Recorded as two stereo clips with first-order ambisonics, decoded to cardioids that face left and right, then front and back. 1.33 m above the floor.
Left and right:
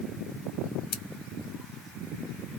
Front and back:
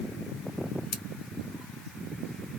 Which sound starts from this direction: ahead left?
Scissors, at 0.9 s.